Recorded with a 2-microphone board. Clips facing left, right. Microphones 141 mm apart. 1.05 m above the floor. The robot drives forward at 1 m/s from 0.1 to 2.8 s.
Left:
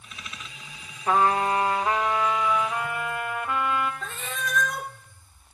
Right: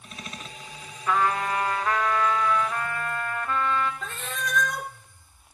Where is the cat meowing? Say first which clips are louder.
Even; centre (ahead or behind), 0.8 m.